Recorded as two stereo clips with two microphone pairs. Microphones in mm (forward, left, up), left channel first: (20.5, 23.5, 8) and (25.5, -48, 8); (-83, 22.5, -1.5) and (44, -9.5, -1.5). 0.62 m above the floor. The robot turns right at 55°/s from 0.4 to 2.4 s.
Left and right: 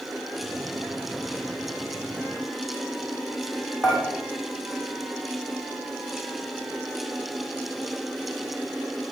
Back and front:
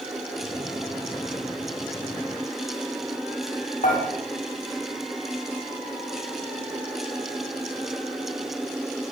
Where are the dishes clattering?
175° right, 2.5 m.